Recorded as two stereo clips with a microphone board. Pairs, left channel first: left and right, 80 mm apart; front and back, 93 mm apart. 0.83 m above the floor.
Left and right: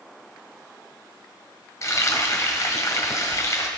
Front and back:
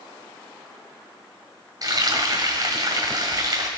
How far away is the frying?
About 1.6 m.